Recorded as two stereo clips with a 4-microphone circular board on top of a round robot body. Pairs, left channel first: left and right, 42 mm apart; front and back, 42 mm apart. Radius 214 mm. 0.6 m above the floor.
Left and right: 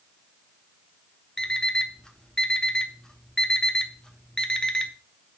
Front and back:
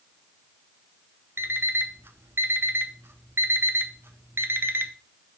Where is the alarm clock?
165° left, 1.2 m.